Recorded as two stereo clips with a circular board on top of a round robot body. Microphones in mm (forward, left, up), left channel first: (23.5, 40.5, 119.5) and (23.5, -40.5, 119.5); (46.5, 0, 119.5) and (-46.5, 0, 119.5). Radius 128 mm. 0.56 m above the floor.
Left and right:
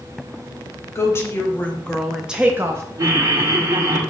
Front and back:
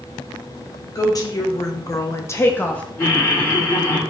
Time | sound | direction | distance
0.9 | a woman speaking | 40° left | 1.3 m
3.0 | laughter | 55° right | 1.5 m